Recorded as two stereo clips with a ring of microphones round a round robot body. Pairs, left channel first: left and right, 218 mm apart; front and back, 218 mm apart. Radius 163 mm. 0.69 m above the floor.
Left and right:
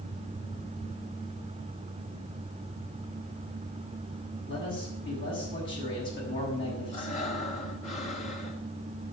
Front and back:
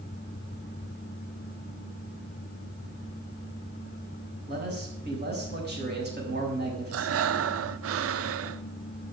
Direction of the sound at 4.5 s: 140° left.